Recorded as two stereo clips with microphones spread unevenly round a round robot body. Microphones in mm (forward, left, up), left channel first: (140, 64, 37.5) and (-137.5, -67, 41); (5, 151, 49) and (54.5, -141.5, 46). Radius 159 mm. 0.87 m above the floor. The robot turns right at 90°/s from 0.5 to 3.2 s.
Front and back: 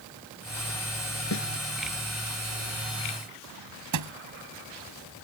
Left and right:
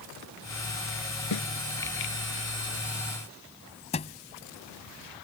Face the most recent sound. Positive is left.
turn(degrees=170)